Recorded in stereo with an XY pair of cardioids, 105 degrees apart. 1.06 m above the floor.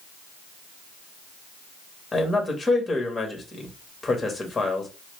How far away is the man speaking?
About 1.5 m.